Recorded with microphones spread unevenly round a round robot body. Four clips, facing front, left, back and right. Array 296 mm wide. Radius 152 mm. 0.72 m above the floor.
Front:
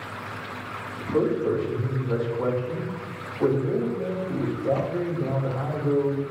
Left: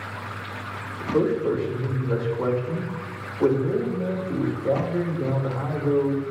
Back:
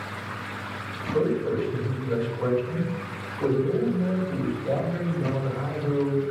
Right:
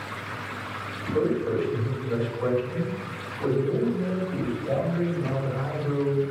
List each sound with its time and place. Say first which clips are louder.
1.0 s a man speaking: left 3 dB, front 1 dB; 55° left, 3 m